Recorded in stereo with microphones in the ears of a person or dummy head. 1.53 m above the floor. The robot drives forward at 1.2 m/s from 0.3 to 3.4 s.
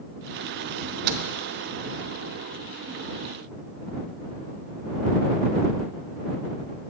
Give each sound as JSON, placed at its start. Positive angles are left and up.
{"t": 0.8, "sound": "a microwave", "side_deg": -40, "distance_m": 0.8}